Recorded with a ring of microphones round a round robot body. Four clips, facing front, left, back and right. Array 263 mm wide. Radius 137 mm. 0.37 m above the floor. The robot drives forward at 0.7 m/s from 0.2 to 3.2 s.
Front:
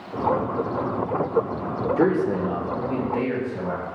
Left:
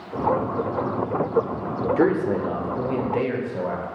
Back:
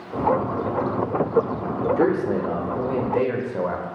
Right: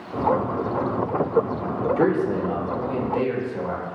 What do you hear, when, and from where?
2.0 s a man speaking: 85° left, 0.8 m; by 3.9 s 160° left, 1.2 m